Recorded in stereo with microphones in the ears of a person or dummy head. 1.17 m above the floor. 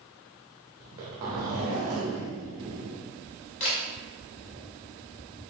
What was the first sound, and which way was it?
A zipper, 20° right (ahead or behind).